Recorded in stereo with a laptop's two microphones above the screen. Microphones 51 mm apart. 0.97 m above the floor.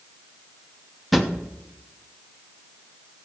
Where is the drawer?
Centre (ahead or behind), 0.8 m.